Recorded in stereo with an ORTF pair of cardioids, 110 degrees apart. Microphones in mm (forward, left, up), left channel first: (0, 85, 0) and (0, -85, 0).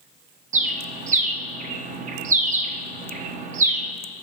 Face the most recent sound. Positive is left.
turn(degrees=-50)